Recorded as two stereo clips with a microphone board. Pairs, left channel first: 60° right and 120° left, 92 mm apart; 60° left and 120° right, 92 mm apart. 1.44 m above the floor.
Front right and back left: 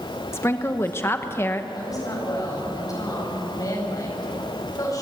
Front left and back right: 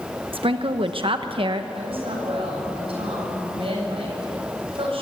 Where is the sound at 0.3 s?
120° right, 0.9 m.